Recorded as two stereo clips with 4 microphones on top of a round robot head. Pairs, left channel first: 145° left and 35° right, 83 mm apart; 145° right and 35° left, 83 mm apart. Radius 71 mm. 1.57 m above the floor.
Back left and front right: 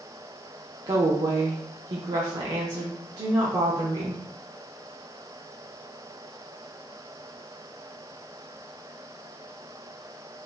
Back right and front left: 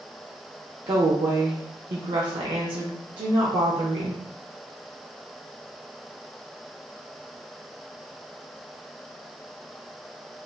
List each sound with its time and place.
0.9 s a woman speaking: 10° left, 0.6 m